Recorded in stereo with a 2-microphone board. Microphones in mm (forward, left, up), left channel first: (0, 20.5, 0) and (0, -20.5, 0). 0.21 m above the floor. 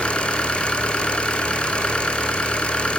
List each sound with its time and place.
0.0 s an engine running: 30° left (ahead or behind), 1.5 m